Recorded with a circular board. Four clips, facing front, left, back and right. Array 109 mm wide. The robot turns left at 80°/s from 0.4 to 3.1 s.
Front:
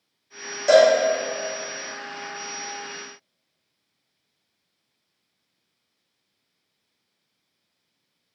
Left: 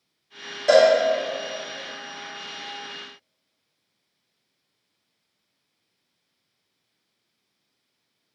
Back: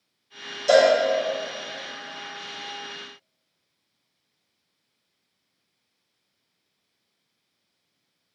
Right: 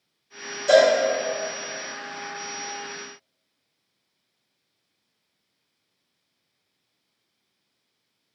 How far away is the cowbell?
About 2.0 m.